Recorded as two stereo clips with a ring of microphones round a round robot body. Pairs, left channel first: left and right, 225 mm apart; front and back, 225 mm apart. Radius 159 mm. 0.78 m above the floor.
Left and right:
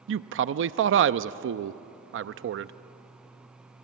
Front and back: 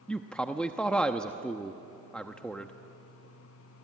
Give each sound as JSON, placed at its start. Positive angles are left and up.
{"t": 0.1, "sound": "a man speaking", "azimuth_deg": -85, "distance_m": 0.6}